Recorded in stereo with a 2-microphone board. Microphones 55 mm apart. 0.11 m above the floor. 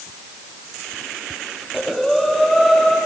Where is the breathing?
Centre (ahead or behind), 3 m.